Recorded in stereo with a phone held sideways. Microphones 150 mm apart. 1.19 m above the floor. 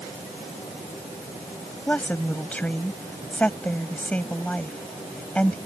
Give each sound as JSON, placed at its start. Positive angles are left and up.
{"t": 1.9, "sound": "a woman speaking", "side_deg": 10}